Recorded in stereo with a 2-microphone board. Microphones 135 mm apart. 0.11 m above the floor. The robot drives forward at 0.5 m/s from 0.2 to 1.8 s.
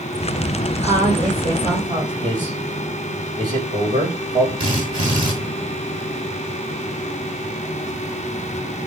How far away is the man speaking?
About 8 m.